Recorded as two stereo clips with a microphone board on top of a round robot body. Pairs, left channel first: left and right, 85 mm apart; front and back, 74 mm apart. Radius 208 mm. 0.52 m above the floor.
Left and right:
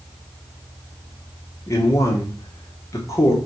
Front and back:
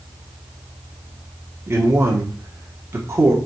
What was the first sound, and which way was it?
A man speaking, 135° left.